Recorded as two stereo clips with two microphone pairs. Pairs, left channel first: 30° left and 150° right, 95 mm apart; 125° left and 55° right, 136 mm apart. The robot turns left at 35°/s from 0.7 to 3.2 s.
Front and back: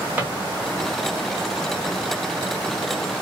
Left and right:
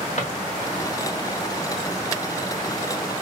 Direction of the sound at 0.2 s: 145° left.